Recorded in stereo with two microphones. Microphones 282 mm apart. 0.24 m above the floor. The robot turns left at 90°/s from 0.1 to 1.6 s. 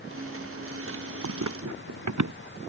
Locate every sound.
1.2 s running footsteps: 75° right (ahead or behind)